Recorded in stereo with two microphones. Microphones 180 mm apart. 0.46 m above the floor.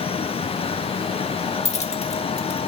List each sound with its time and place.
1.6 s keys jangling: 40° left (ahead or behind), 1.0 m